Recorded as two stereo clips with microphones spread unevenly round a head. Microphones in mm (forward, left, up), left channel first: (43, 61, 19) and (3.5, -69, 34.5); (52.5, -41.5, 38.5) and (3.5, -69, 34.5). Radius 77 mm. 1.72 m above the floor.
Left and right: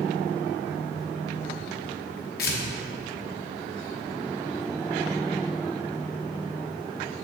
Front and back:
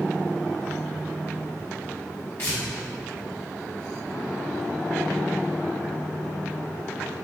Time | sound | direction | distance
2.4 | tearing paper | 95° left | 1.1 m